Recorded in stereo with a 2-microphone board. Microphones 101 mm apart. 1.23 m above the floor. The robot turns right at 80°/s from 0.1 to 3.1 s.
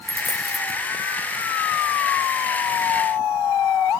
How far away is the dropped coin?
About 3 m.